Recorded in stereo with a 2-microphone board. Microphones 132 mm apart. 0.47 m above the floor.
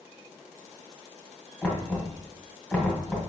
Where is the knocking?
10° left (ahead or behind), 2 m.